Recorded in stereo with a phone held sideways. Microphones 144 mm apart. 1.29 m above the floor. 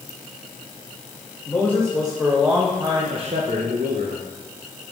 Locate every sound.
1.5 s a man speaking: 10° left (ahead or behind), 1.9 m; by 4.2 s 90° right, 1.2 m